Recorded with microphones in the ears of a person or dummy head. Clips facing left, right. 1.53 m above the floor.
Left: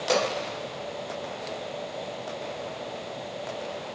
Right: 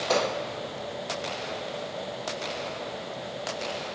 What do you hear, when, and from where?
0.1 s a pop: 50° left (ahead or behind), 2.5 m